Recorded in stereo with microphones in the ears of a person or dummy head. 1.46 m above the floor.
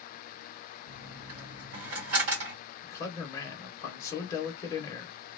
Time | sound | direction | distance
0.9 | a dropped coin | 50° right (ahead or behind) | 1.5 m
2.8 | a man speaking | 20° left (ahead or behind) | 0.8 m